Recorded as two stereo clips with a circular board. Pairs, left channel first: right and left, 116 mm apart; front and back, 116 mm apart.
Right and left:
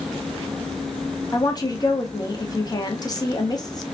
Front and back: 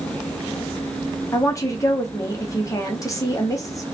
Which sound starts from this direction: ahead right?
A woman speaking, at 1.3 s.